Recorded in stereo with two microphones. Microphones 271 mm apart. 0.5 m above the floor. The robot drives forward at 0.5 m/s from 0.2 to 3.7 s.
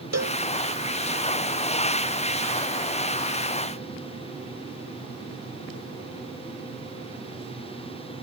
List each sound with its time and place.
0.1 s a cowbell: 75° right (ahead or behind)